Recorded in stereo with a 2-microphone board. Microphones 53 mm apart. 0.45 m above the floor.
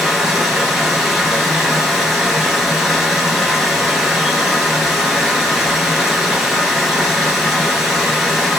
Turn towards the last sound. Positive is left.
turn(degrees=-10)  # may be behind; listen again after turning